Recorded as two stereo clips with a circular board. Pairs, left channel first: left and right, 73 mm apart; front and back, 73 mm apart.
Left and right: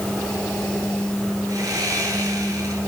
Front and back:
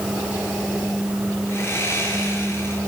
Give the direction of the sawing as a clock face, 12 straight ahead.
2 o'clock.